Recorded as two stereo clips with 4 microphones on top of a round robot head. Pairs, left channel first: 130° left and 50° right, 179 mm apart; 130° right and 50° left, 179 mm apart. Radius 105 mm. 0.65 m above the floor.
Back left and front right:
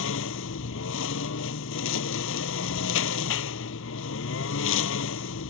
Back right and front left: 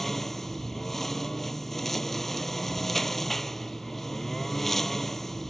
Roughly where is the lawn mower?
Behind left.